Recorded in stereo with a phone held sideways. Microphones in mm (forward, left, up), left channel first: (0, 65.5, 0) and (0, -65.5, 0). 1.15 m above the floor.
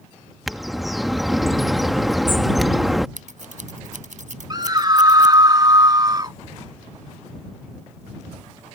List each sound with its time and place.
0.5 s a bird: centre (ahead or behind)
3.2 s scissors: 75° right (ahead or behind)
4.5 s a scream: 35° right (ahead or behind)